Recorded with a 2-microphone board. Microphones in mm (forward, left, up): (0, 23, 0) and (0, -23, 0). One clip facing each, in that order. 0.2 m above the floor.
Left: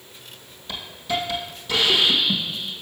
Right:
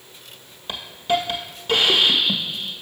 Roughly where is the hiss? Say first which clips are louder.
Right 5 dB; right.